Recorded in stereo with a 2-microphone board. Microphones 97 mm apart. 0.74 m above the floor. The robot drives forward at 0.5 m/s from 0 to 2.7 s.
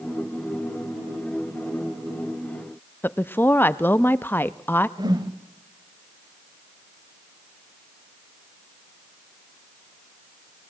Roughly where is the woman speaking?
Left.